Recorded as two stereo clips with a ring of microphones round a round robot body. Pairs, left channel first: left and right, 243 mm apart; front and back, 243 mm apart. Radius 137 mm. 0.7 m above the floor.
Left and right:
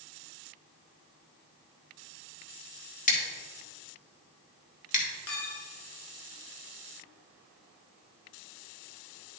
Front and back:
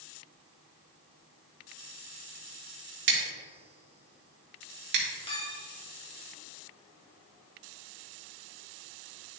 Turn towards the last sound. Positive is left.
turn(degrees=65)